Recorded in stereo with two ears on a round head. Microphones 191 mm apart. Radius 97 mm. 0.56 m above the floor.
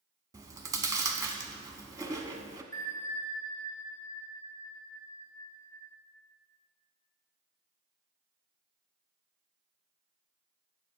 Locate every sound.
0.3 s chewing: 15° right (ahead or behind), 0.9 m
2.7 s a bell: 20° left (ahead or behind), 1.4 m